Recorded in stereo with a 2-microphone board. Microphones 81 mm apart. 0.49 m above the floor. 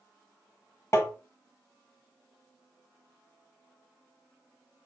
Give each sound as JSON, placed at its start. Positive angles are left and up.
{"t": 0.9, "sound": "tapping", "side_deg": 40, "distance_m": 1.0}